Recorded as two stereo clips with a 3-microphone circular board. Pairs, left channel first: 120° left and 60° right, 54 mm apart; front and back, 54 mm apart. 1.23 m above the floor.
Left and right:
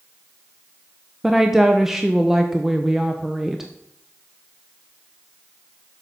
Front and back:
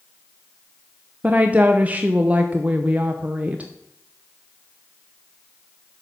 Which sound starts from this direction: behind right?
A woman speaking, at 1.2 s.